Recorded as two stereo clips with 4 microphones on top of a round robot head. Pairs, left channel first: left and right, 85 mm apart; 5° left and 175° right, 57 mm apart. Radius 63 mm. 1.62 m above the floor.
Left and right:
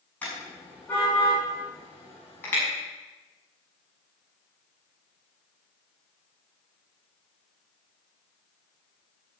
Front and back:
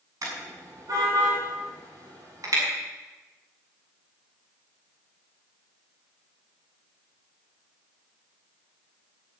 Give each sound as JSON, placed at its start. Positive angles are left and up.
{"t": 0.2, "sound": "a car horn", "azimuth_deg": 170, "distance_m": 7.0}